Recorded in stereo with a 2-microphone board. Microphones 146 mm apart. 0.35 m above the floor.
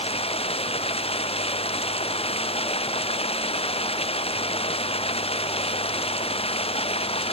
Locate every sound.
0.0 s running water: 40° left (ahead or behind)